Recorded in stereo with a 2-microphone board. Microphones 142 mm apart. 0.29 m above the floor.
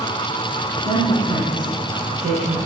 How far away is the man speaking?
About 4 m.